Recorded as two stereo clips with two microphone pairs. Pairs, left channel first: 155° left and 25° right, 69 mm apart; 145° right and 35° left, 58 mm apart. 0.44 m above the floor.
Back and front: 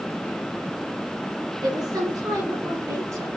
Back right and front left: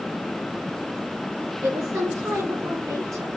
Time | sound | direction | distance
1.6 | a woman speaking | 10° right | 4 m